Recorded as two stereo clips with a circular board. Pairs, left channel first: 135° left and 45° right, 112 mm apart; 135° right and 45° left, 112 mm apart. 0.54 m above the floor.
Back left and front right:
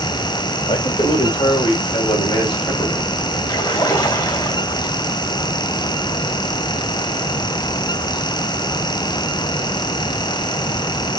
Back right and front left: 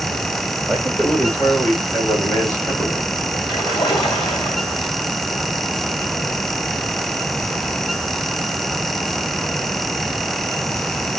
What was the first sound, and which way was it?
A man speaking, 140° left.